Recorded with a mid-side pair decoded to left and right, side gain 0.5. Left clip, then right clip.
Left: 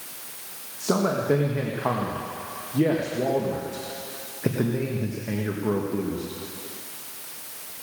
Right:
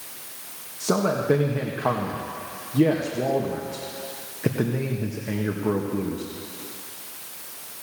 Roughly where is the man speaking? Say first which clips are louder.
Right 1 dB; ahead.